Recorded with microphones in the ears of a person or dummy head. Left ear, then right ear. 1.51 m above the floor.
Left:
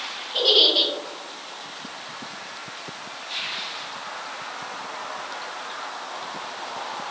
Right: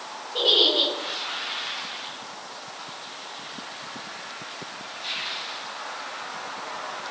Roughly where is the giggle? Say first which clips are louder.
Left 2 dB; left.